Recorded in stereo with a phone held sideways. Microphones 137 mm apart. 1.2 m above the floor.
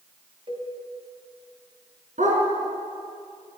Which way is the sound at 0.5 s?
45° right (ahead or behind).